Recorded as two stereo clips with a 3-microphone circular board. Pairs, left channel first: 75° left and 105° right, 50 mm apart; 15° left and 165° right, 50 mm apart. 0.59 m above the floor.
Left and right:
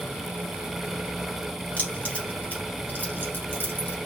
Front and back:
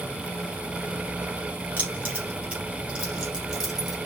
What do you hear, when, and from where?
1.8 s keys jangling: 135° left, 2.5 m; by 4.0 s 110° left, 2.0 m